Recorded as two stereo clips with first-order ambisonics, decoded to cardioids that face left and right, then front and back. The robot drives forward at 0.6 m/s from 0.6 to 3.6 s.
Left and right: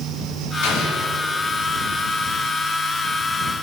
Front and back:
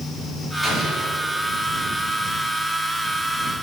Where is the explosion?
95° left, 3 m; by 1.2 s 100° left, 3 m.